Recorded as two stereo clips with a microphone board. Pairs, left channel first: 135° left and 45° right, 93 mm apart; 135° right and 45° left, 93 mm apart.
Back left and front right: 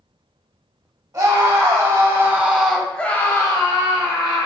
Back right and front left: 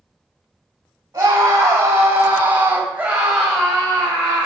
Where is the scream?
5° right, 1.9 m; by 4.5 s 150° left, 1.7 m.